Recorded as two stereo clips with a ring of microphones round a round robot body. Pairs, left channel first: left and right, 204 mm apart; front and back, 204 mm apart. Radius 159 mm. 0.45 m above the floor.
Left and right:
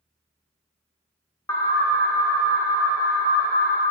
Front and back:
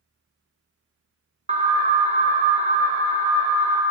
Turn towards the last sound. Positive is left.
turn(degrees=155)